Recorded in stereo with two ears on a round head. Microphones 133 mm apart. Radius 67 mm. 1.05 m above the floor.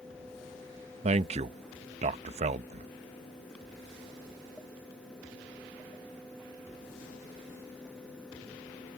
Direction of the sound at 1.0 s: 45° right (ahead or behind).